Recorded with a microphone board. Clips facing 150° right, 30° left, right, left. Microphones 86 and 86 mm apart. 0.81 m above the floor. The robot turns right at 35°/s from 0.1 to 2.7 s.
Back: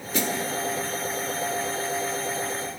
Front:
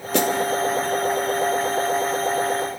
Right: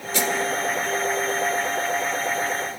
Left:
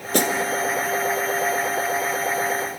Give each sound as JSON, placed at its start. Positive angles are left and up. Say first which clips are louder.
{"t": 0.1, "sound": "a snare drum", "louder": "front 7 dB, left 3 dB", "azimuth_deg": 50, "distance_m": 1.3}